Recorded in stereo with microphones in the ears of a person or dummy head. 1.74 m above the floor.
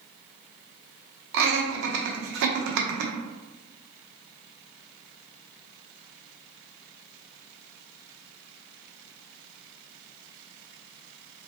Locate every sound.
1.3 s laughter: 65° right (ahead or behind), 0.9 m